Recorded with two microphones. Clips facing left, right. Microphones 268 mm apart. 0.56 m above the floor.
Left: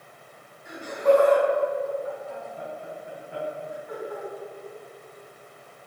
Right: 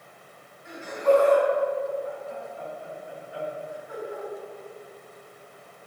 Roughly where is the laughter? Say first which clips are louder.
Left 1 dB; left.